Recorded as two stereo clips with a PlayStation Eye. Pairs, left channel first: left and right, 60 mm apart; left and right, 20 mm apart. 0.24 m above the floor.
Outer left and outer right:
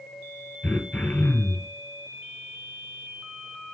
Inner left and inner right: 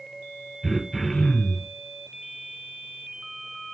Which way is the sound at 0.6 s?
25° left (ahead or behind).